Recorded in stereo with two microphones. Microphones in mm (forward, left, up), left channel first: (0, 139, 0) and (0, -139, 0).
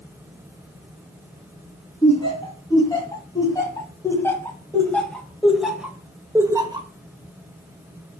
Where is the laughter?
15° left (ahead or behind), 3 m; by 6.9 s 15° right (ahead or behind), 1.1 m.